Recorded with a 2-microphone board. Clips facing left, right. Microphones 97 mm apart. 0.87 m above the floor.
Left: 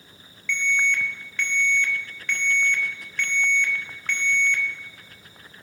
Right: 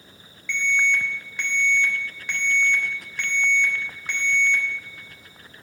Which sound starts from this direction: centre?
An alarm, at 0.5 s.